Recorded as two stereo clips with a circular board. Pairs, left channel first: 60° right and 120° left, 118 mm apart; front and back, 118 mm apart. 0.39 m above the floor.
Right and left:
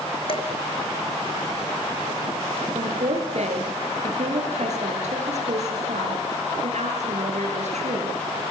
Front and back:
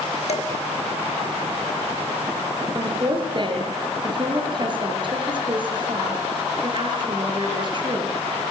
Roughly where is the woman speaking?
Behind left.